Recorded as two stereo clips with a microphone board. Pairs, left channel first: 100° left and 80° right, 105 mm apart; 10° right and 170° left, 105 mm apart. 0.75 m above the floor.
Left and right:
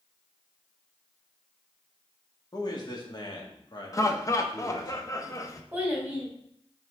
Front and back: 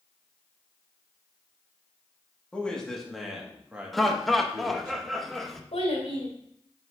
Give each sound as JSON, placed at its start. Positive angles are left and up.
{"t": 2.5, "sound": "a man speaking", "azimuth_deg": 65, "distance_m": 1.7}
{"t": 3.9, "sound": "laughter", "azimuth_deg": 75, "distance_m": 0.7}
{"t": 5.7, "sound": "a child speaking", "azimuth_deg": -5, "distance_m": 2.0}